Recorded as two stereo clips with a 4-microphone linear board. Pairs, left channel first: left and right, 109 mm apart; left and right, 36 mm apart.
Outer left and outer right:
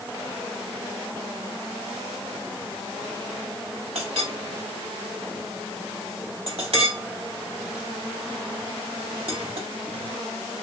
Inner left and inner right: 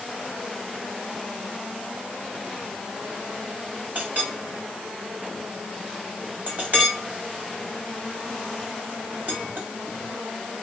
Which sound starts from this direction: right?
A clink, at 4.0 s.